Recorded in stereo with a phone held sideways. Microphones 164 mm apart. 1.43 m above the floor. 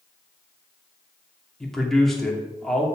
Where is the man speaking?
Centre (ahead or behind), 3 m.